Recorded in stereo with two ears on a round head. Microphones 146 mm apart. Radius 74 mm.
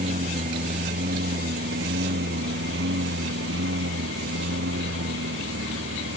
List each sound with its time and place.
0.0 s a lawn mower: 45° right (ahead or behind); by 6.2 s 80° right